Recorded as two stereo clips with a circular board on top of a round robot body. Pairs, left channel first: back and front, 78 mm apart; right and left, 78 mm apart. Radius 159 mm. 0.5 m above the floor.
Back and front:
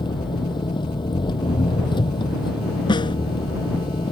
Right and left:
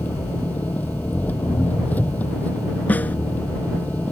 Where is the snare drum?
160° right.